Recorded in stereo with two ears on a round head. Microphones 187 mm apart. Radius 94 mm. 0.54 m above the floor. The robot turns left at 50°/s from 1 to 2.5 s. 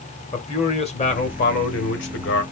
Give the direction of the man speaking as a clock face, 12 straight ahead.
7 o'clock.